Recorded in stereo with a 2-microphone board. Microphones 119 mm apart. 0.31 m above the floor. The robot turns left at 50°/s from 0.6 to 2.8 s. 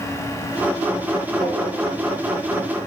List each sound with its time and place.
1.4 s tapping: 65° right (ahead or behind), 8 m; by 1.6 s 55° right (ahead or behind), 8 m